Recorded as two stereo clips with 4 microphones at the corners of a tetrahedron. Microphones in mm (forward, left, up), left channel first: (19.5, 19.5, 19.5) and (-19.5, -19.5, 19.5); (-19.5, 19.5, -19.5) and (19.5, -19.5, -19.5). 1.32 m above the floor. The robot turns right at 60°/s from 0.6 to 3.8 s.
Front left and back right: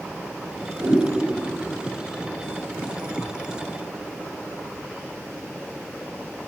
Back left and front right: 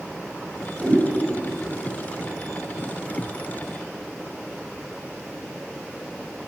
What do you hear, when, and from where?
0.8 s a whoosh: 130° right, 4.5 m; by 1.1 s 115° right, 4.5 m